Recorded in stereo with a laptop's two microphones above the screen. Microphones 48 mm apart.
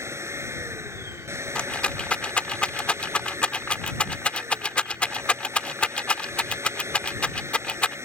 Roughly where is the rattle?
Left.